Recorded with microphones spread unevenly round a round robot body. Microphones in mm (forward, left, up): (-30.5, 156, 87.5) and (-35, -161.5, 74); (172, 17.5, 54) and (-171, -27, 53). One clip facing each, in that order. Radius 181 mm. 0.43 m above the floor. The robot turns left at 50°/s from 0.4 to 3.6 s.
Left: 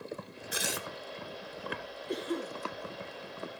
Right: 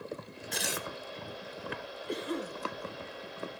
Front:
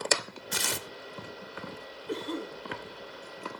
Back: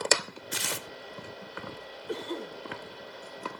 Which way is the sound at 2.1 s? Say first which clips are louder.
Left 1 dB, front 1 dB; 55° right.